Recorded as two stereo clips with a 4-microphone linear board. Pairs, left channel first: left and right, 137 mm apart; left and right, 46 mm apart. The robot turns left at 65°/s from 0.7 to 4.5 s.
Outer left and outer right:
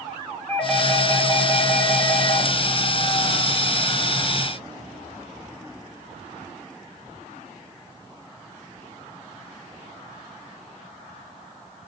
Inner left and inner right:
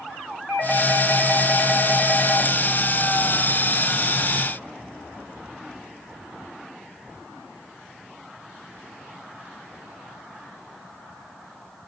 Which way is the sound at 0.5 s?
165° left.